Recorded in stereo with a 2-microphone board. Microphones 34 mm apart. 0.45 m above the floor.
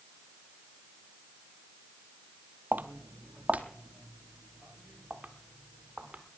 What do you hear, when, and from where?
2.7 s footsteps: 55° right (ahead or behind), 0.7 m; by 6.2 s 25° right (ahead or behind), 3 m